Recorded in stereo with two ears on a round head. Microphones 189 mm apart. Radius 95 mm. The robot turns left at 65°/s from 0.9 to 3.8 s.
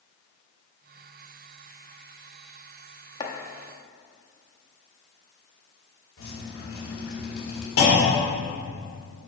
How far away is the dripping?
About 2.5 m.